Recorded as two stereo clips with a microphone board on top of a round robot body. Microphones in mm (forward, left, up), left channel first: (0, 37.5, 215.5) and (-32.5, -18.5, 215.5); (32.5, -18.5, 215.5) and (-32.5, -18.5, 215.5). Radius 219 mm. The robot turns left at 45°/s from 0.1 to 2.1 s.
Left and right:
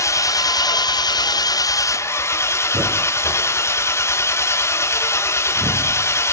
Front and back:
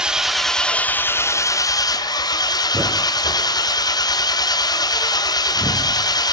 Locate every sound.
0.0 s an engine running: 100° left, 1.7 m; by 6.3 s 10° left, 1.7 m
2.7 s a thud: 130° right, 2 m